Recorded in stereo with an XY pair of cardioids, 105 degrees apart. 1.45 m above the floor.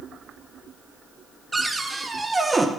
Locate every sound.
1.5 s a cupboard door: 15° right, 0.9 m